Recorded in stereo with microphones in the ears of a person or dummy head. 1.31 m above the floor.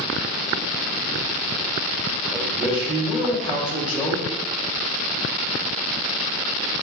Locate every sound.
2.3 s a man speaking: centre (ahead or behind), 2 m